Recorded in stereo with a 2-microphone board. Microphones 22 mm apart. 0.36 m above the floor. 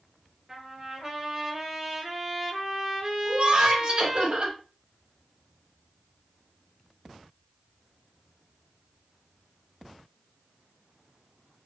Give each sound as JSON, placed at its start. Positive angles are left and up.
{"t": 0.5, "sound": "a trumpet", "side_deg": -20, "distance_m": 1.9}
{"t": 3.2, "sound": "laughter", "side_deg": -50, "distance_m": 1.8}